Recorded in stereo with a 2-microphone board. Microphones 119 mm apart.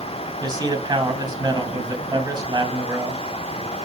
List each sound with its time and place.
0.4 s a man speaking: 35° right (ahead or behind), 2.5 m